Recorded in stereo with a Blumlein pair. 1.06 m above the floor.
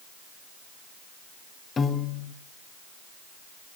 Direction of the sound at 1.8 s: 20° left.